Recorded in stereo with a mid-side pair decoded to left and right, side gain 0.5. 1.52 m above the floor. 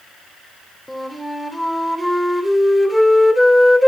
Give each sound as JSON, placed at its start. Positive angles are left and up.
{"t": 0.9, "sound": "a flute", "azimuth_deg": 5, "distance_m": 3.5}